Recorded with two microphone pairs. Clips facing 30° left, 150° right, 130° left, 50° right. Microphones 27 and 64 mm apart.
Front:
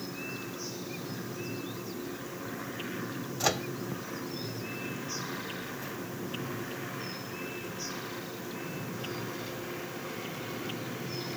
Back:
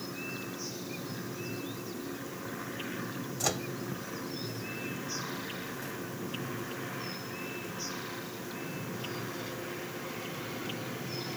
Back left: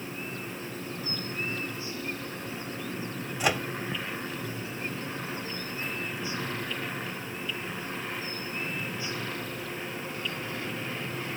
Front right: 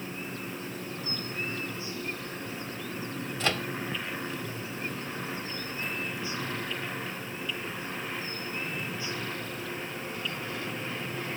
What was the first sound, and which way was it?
A microwave, 70° left.